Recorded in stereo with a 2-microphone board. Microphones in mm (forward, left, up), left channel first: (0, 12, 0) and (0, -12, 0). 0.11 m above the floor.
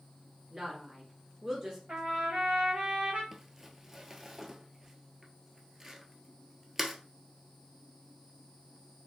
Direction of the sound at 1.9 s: 60° right (ahead or behind).